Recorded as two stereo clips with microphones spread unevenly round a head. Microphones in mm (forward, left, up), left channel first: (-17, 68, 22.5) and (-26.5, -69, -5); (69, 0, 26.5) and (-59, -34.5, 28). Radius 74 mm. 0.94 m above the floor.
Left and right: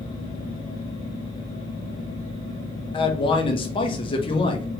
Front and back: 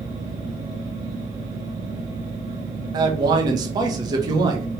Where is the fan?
140° left, 1.3 m.